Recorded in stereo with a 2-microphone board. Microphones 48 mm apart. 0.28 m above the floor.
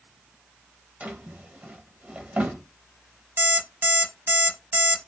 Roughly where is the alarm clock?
Right.